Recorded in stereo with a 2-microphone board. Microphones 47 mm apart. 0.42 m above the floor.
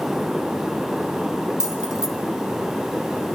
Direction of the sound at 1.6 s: 10° right (ahead or behind).